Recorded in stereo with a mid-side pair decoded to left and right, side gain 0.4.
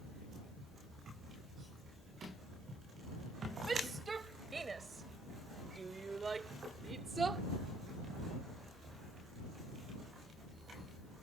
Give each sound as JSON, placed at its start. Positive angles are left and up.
{"t": 3.7, "sound": "a shout", "azimuth_deg": -35}